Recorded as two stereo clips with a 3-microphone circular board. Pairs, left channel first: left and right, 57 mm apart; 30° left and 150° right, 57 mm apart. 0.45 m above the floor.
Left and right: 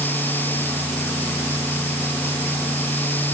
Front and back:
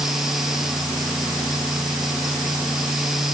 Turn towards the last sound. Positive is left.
No sound to turn to.